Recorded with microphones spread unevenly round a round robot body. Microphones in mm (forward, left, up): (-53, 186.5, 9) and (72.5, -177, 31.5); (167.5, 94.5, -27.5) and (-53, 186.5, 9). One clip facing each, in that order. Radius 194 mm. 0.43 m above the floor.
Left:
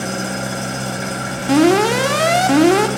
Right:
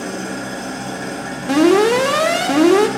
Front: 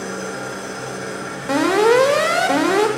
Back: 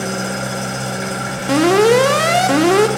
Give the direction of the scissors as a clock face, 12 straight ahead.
No scissors in this recording.